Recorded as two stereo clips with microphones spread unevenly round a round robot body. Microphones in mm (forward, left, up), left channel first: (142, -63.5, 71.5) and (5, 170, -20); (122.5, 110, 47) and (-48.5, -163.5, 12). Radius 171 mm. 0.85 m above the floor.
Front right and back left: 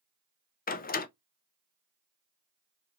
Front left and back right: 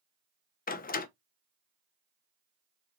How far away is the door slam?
About 0.5 m.